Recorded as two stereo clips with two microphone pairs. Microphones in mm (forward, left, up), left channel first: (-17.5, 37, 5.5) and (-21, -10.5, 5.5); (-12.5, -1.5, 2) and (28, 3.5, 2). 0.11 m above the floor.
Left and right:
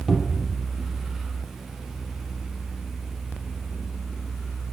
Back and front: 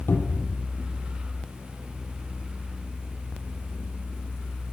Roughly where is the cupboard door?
Behind.